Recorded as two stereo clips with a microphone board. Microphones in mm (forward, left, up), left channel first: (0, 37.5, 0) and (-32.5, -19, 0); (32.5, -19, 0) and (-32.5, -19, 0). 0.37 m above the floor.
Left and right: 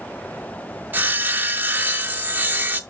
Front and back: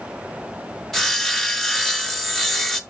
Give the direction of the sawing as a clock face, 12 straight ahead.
3 o'clock.